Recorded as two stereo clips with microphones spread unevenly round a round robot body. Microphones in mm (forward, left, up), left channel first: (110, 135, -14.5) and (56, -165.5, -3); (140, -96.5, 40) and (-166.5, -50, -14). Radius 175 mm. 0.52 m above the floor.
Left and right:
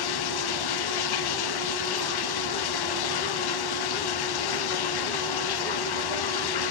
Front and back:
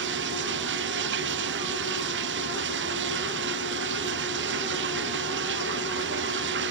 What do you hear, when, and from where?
0.0 s running water: 110° left